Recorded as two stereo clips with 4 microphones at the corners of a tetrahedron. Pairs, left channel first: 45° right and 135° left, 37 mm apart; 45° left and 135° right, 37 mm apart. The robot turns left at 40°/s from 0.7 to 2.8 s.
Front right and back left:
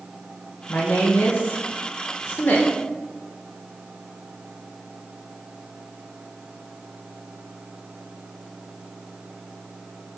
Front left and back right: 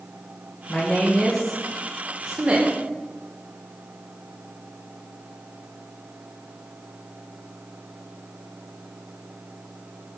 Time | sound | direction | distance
0.7 | a woman speaking | 10° right | 1.7 m